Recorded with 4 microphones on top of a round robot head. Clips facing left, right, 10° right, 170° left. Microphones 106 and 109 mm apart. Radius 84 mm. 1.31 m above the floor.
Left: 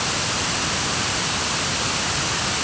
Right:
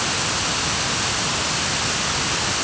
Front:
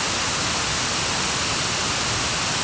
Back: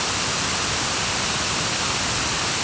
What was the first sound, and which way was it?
Only background noise.